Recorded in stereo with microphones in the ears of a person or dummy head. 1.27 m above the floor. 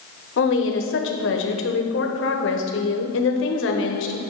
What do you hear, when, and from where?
0.4 s a woman speaking: 65° left (ahead or behind), 0.9 m